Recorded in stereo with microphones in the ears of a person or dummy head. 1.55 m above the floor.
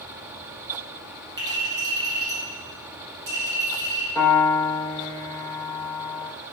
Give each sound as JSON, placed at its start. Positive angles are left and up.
{"t": 1.4, "sound": "a clink", "side_deg": -20, "distance_m": 1.5}
{"t": 4.2, "sound": "a piano", "side_deg": 10, "distance_m": 1.3}